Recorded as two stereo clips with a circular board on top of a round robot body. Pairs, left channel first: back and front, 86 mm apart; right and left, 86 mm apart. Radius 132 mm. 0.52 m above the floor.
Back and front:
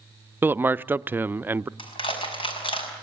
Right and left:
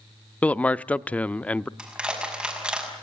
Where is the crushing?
170° left, 6 m.